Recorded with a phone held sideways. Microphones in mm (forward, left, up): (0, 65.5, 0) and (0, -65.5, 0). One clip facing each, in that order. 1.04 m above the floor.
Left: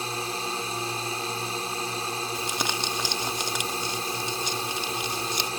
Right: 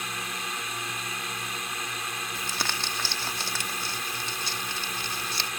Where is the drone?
30° left (ahead or behind).